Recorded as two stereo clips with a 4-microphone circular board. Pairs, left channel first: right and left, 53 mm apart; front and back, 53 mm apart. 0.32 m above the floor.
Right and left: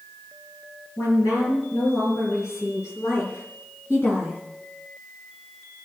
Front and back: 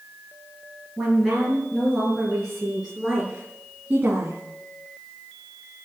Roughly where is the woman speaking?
Right.